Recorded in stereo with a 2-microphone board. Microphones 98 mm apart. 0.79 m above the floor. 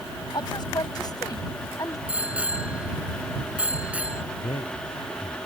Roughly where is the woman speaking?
Left.